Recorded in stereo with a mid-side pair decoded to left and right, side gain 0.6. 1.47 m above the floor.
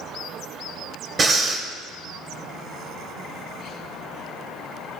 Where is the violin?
No violin in this recording.